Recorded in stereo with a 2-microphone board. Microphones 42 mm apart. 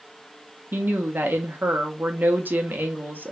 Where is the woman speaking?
50° right (ahead or behind), 1.4 m.